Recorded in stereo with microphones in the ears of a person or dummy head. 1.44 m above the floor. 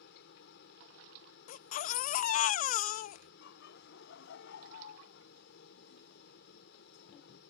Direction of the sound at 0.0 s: 60° left (ahead or behind).